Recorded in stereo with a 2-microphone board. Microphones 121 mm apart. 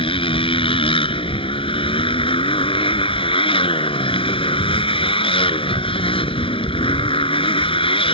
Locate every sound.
0.0 s a motorcycle: 45° left (ahead or behind)